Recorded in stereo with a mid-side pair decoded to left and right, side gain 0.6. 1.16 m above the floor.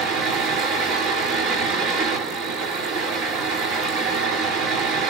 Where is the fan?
70° right, 1.3 m.